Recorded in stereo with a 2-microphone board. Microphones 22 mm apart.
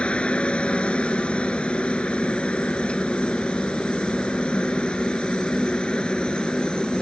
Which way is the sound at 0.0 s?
65° left (ahead or behind).